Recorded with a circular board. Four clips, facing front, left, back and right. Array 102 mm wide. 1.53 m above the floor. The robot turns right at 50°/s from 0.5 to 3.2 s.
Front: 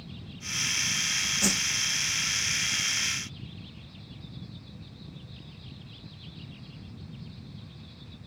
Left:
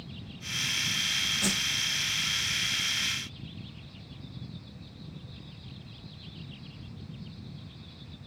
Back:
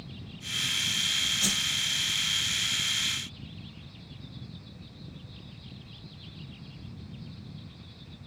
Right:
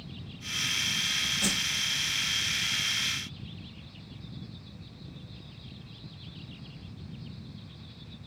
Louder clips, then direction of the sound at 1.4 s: Left 1 dB, front 6 dB; straight ahead.